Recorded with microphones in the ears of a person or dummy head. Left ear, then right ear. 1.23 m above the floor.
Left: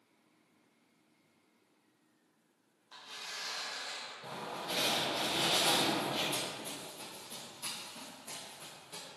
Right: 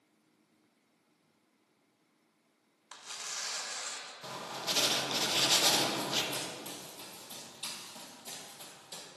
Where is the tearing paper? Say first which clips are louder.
Right 2 dB; 65° right (ahead or behind), 1.1 m.